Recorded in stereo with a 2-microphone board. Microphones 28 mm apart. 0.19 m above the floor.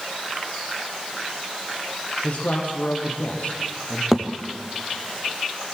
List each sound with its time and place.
2.2 s a man speaking: 55° left (ahead or behind), 6 m
4.1 s a thud: 15° right (ahead or behind), 2.5 m